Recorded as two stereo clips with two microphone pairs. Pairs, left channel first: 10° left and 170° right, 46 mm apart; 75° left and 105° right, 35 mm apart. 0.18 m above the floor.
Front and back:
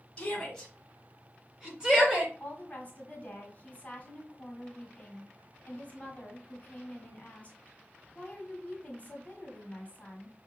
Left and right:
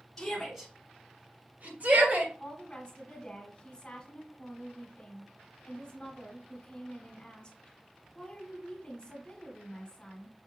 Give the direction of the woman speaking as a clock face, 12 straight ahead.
11 o'clock.